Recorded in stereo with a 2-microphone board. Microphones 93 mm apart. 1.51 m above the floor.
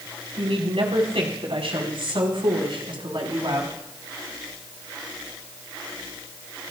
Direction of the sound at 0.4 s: 90° right.